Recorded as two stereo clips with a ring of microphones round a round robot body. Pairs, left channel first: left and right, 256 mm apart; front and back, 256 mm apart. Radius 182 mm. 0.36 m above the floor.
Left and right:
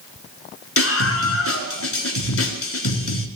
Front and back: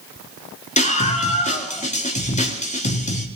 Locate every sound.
0.8 s a scream: 60° left, 5.5 m